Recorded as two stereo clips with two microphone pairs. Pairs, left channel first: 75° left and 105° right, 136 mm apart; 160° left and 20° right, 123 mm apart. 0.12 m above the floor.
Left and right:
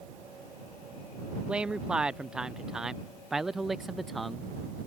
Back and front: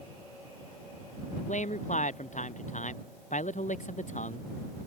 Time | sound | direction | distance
1.5 | a man speaking | 175° left | ?